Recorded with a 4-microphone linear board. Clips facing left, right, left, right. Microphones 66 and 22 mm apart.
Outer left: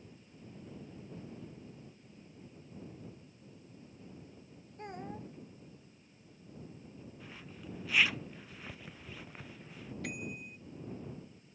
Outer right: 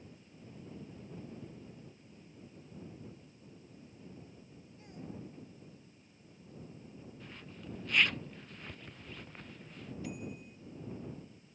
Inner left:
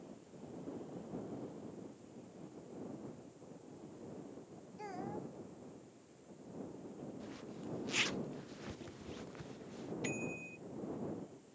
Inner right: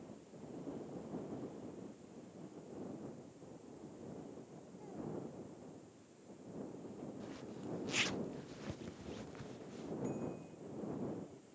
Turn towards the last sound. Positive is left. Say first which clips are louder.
# outer left 2 dB, inner left 4 dB
turn(degrees=75)  # may be behind; listen again after turning